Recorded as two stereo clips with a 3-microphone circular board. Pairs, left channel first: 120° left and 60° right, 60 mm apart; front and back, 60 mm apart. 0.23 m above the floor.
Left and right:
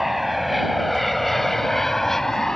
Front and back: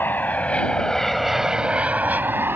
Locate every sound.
0.0 s an aircraft: 25° left; by 2.6 s 160° right